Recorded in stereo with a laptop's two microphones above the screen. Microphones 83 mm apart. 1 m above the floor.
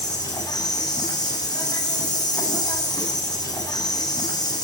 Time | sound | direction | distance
0.0 | an insect | 55° left (ahead or behind) | 8.5 m